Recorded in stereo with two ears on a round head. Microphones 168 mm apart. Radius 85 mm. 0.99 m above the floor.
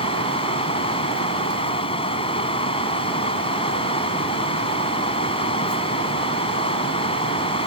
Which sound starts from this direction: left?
Running water, at 0.0 s.